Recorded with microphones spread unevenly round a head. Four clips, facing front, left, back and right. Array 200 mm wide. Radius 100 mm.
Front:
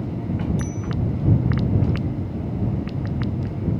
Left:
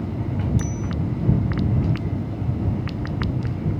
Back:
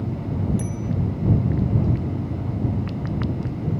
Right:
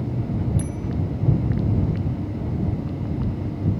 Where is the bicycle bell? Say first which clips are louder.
Left 1 dB, even; 170° left.